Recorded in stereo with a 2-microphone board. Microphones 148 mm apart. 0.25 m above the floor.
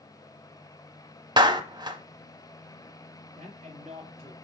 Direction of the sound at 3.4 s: 45° right (ahead or behind).